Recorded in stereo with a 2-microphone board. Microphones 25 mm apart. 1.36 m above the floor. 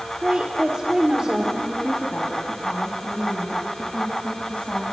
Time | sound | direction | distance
0.2 | a woman speaking | 45° right (ahead or behind) | 1.9 m
1.6 | a woman speaking | 70° left (ahead or behind) | 3 m